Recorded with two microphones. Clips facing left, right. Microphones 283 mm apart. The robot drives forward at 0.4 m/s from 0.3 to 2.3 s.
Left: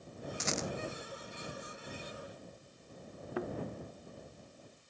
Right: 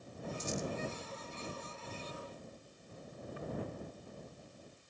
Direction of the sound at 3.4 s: 85° left.